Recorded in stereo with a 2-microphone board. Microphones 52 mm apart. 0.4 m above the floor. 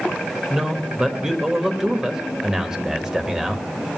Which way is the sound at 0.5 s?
10° right (ahead or behind).